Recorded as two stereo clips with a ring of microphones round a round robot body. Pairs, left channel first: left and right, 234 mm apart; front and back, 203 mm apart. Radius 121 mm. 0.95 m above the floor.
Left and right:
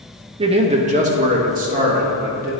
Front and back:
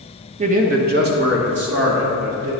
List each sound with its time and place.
0.4 s a man speaking: 145° right, 0.7 m